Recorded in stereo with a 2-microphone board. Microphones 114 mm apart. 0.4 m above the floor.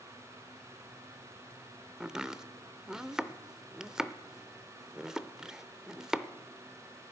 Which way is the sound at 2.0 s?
5° right (ahead or behind).